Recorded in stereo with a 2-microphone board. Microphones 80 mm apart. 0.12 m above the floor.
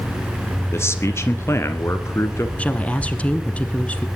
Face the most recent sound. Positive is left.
turn(degrees=15)  # may be behind; listen again after turning